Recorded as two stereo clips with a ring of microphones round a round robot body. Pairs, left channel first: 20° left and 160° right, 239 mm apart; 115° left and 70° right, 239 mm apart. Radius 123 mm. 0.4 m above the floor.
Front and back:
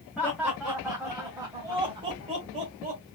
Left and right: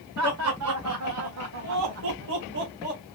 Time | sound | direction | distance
0.2 | laughter | 65° right | 2 m